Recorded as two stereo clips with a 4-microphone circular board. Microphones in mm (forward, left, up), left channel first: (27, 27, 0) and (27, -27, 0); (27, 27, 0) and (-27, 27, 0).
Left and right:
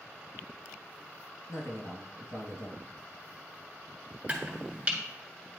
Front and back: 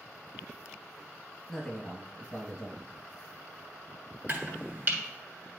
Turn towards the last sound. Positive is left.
turn(degrees=-150)